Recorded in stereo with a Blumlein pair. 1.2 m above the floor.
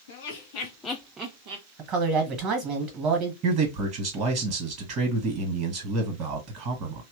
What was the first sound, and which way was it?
Laughter, 65° left.